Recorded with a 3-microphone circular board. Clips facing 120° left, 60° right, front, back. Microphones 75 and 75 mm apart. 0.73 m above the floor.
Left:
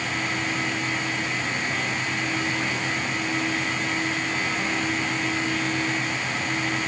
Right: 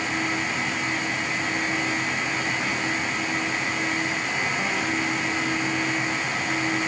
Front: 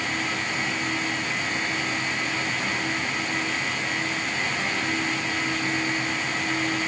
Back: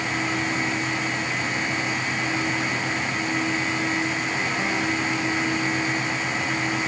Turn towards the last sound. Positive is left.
No sound to turn to.